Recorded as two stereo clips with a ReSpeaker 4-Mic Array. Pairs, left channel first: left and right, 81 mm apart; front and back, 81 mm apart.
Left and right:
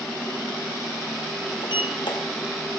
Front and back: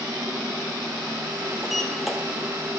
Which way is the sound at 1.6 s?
90° left.